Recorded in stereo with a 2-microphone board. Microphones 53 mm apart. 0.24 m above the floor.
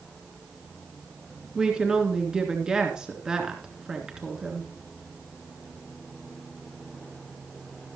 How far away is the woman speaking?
About 3 m.